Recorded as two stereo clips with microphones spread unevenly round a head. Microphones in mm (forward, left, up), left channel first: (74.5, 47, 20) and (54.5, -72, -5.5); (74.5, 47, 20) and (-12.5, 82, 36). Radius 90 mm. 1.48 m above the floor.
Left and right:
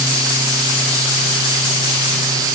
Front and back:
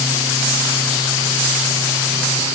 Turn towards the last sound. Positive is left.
No sound to turn to.